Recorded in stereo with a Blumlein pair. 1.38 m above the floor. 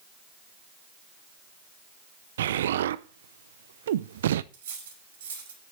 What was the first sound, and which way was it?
An explosion, 60° right.